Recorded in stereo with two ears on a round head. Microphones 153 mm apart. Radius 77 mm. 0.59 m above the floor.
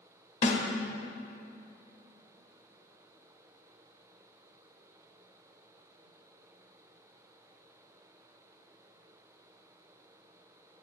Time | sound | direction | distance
0.4 | a snare drum | 45° left (ahead or behind) | 0.9 m